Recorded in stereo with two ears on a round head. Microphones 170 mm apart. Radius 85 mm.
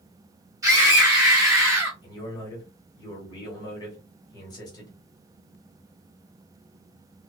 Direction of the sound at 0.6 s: 20° right (ahead or behind).